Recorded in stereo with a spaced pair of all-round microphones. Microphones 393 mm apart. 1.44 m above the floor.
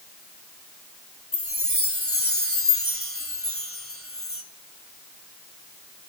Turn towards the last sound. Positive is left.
turn(degrees=30)  # may be behind; listen again after turning